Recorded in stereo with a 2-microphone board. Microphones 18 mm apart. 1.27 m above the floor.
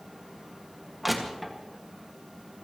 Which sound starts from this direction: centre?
Crushing, at 1.0 s.